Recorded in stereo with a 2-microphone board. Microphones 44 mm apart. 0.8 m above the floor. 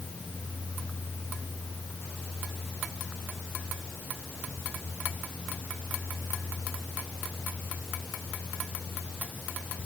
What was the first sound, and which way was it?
Only background noise.